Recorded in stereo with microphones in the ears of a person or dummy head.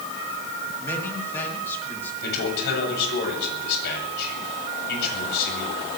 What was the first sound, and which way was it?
A man speaking, 10° left (ahead or behind).